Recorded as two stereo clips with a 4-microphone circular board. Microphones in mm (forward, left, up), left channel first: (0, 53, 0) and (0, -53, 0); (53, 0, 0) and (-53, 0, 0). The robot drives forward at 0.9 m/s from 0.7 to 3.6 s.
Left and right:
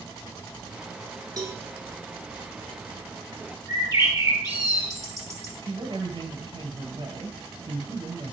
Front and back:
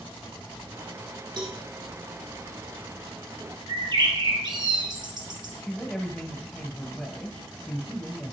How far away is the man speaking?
About 2 m.